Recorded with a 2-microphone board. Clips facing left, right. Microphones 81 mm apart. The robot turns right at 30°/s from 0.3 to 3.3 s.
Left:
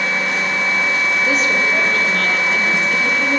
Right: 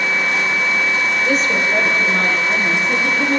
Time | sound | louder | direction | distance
1.2 | a woman speaking | even | 175° left | 7 m